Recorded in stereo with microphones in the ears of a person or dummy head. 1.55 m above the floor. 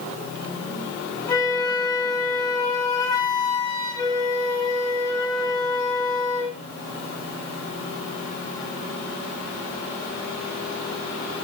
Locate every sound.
1.3 s a flute: 15° left (ahead or behind), 6 m